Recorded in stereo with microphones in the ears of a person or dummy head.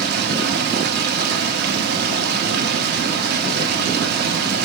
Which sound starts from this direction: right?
Running water, at 0.0 s.